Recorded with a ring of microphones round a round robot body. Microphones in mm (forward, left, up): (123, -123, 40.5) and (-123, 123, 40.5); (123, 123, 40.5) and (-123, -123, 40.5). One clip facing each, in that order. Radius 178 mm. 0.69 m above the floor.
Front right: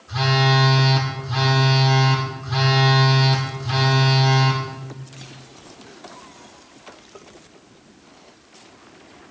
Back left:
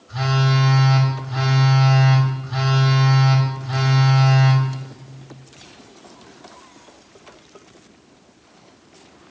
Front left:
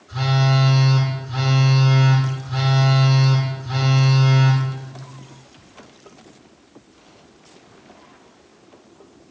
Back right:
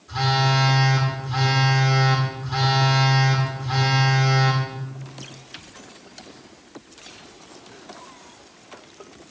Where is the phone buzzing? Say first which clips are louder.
Front right 1 dB, front left 3 dB; 60° right, 3 m.